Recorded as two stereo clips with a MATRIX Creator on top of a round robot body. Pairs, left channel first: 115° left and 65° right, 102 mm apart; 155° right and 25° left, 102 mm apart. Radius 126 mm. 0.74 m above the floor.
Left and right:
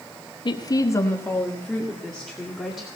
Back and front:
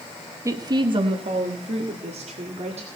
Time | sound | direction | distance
0.5 | a woman speaking | 80° left | 1.2 m